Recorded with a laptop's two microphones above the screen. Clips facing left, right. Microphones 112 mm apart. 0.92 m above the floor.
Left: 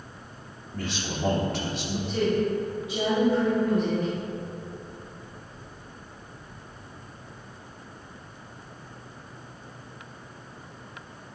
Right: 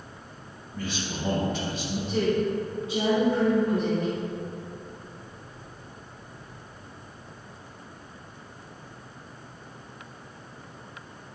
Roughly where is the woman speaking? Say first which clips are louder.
Even; right.